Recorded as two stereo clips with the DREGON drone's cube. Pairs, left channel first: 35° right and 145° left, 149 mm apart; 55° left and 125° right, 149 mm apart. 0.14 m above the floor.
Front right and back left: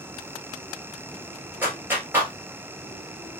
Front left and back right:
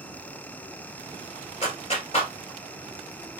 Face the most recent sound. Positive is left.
turn(degrees=75)